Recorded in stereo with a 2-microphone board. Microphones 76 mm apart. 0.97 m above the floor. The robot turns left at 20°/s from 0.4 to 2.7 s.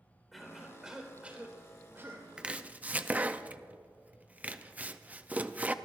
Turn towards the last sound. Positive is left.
turn(degrees=-20)  # may be behind; listen again after turning